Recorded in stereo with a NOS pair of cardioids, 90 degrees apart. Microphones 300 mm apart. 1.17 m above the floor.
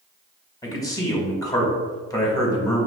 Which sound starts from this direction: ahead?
A man speaking, at 0.6 s.